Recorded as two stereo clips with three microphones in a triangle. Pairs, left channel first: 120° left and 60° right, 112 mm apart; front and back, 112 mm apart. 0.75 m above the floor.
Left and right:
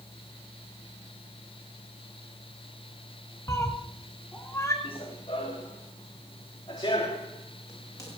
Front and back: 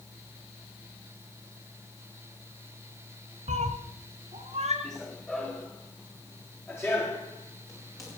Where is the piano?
I don't hear a piano.